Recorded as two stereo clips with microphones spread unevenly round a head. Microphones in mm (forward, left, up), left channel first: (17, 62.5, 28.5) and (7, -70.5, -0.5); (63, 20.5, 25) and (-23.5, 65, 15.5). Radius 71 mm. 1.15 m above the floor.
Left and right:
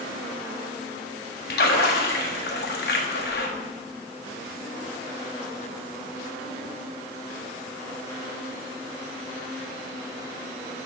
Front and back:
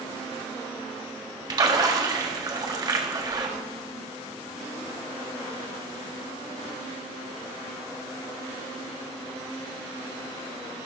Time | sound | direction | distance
1.5 | a splash | 105° left | 1.5 m